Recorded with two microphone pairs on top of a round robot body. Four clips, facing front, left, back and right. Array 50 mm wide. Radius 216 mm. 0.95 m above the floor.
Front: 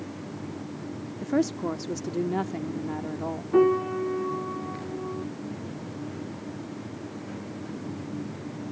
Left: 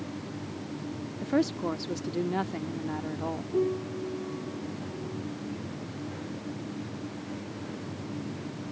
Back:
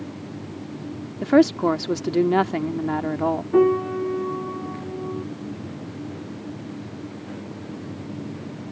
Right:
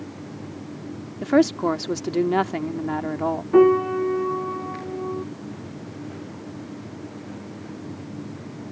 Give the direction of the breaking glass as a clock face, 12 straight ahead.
No breaking glass in this recording.